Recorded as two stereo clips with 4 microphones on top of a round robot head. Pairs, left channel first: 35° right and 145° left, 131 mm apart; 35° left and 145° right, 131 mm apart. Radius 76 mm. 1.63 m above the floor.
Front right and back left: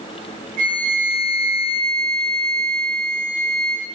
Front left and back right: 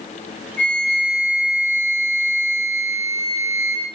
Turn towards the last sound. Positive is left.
turn(degrees=115)